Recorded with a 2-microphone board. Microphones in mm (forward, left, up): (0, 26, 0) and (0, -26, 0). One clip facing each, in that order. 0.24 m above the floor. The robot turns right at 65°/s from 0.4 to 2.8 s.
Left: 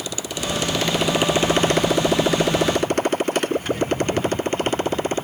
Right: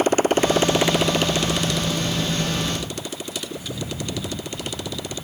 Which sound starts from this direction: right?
A motorcycle, at 0.0 s.